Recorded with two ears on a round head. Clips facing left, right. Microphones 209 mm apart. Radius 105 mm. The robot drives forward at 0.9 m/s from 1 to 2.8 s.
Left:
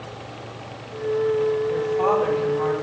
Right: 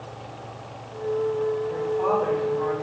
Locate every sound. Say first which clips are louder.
1.7 s a woman speaking: left 3 dB; 70° left (ahead or behind), 3.5 m; by 2.7 s 60° left (ahead or behind), 4 m